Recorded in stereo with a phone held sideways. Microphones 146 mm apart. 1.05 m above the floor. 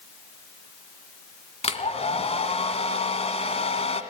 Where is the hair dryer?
45° left (ahead or behind), 1.7 m.